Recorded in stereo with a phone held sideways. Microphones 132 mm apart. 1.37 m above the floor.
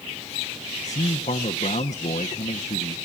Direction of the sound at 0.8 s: 70° left (ahead or behind).